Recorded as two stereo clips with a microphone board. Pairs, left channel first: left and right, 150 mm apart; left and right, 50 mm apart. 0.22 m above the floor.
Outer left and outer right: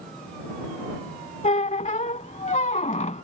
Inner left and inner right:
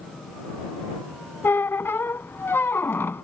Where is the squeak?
50° left (ahead or behind).